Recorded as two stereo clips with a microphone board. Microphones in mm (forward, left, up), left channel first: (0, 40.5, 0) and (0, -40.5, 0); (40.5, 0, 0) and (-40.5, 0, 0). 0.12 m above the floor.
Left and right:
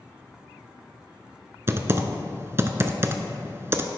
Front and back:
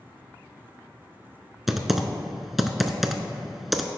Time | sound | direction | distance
1.7 | typing on a keyboard | 95° right | 0.5 m